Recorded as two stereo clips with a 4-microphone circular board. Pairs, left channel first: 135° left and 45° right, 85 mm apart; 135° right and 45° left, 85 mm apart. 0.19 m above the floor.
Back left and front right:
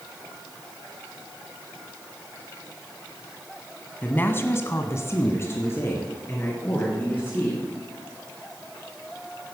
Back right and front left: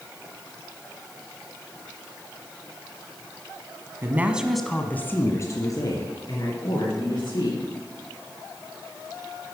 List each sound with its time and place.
4.0 s a woman speaking: 85° left, 1.4 m; by 7.6 s 160° right, 4.5 m